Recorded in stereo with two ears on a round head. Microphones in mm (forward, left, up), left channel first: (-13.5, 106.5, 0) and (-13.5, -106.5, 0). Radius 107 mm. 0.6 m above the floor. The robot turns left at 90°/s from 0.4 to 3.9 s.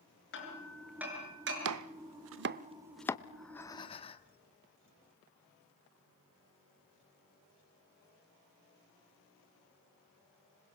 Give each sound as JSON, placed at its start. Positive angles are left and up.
{"t": 0.3, "sound": "hammering", "side_deg": 50, "distance_m": 6.0}
{"t": 1.6, "sound": "chopping", "side_deg": -60, "distance_m": 0.6}
{"t": 3.3, "sound": "breathing", "azimuth_deg": -170, "distance_m": 1.2}